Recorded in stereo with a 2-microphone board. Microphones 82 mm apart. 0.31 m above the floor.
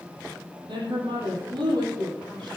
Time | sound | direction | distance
0.7 | a woman speaking | 80° right | 9.5 m